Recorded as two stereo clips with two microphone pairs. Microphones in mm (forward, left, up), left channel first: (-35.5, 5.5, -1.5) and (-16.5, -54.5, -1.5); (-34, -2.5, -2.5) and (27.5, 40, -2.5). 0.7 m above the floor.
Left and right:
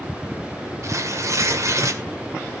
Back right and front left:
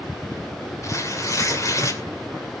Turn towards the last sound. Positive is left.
turn(degrees=-105)